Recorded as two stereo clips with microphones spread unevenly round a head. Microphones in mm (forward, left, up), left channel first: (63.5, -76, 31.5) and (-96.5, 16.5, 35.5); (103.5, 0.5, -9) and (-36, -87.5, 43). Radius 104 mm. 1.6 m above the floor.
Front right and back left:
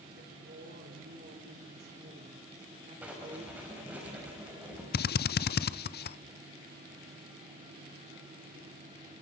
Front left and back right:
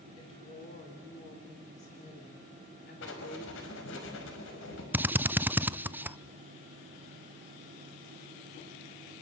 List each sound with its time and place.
0.2 s a woman speaking: 100° left, 5 m; by 4.0 s 75° left, 5 m
3.0 s writing: 65° left, 5 m
4.9 s a drill: 70° right, 0.7 m